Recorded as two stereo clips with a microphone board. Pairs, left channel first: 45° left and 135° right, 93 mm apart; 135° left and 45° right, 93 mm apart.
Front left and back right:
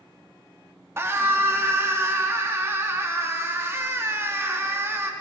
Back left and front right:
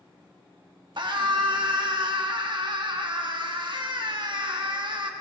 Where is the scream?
75° right, 1.4 m.